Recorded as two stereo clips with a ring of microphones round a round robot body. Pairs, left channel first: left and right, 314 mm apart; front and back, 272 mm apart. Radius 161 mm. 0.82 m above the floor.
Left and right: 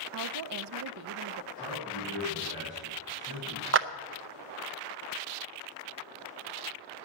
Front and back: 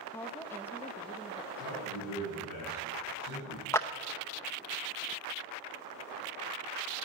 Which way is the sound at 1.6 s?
15° right.